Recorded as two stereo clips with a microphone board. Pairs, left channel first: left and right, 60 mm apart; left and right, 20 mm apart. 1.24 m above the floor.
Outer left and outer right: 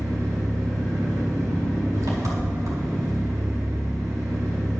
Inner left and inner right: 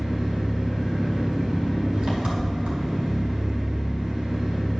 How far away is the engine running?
About 2.0 m.